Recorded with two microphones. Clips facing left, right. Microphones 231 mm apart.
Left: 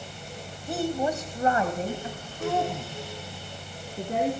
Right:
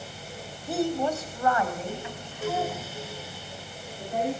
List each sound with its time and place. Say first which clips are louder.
0.7 s a woman speaking: right 1 dB; 5° right (ahead or behind), 1.2 m; by 4.3 s 70° left (ahead or behind), 3 m